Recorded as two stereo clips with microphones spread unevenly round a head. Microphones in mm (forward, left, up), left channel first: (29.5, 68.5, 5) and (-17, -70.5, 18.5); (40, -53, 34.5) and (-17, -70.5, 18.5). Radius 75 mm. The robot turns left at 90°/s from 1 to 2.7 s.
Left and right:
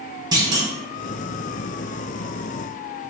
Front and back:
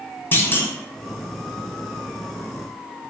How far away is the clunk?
About 0.9 m.